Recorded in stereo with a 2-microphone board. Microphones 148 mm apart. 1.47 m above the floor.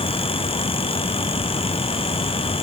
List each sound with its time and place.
Only background noise.